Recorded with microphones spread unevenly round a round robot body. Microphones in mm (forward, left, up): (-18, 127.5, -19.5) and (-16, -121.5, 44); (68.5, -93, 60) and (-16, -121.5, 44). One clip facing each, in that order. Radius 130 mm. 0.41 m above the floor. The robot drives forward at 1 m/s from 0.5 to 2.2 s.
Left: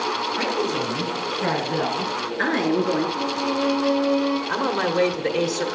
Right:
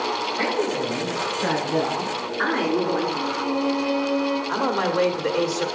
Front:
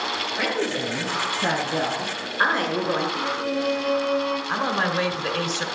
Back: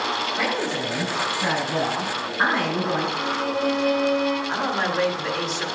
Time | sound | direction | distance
0.4 | a woman speaking | 145° left | 3 m
3.2 | a violin | 160° left | 4.5 m
4.5 | a man speaking | 120° left | 1.2 m